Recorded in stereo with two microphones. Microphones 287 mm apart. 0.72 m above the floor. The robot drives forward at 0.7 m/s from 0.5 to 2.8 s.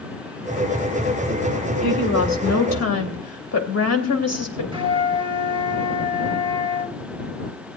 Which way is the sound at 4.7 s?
15° right (ahead or behind).